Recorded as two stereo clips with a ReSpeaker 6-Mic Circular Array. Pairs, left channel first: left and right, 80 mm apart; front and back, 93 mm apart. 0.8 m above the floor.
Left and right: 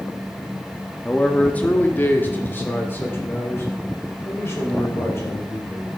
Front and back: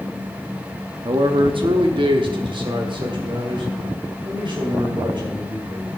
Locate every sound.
1.1 s a man speaking: 165° left, 0.9 m; by 5.9 s 145° left, 3.5 m